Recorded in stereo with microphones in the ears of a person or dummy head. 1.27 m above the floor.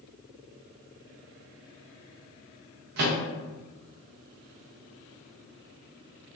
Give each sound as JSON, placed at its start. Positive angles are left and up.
{"t": 3.0, "sound": "a microwave", "side_deg": -45, "distance_m": 0.6}